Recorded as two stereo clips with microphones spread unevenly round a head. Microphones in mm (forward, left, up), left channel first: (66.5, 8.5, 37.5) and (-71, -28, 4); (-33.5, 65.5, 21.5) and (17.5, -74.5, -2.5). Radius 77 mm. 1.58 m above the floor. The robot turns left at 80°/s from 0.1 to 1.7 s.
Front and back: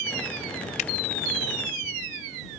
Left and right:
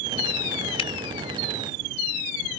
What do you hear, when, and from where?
0.8 s a finger snap: 55° left; by 0.9 s 45° left